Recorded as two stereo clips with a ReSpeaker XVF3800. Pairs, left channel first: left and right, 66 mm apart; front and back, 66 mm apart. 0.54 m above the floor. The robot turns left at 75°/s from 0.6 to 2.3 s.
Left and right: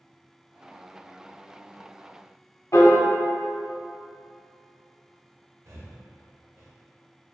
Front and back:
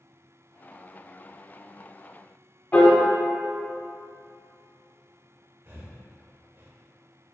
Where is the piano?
55° left, 0.7 m.